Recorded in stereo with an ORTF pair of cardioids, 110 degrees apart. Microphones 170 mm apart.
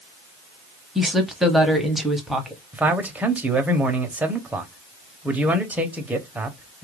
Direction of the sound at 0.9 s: Straight ahead.